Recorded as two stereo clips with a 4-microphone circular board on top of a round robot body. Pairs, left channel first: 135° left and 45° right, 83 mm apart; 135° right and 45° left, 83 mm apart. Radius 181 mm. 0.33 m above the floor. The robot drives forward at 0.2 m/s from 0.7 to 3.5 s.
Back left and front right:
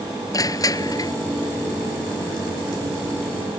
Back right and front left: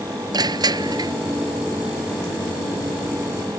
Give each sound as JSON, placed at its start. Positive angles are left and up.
{"t": 0.3, "sound": "crushing", "azimuth_deg": 85}